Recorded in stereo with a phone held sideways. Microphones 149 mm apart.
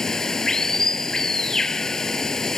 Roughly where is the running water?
Centre.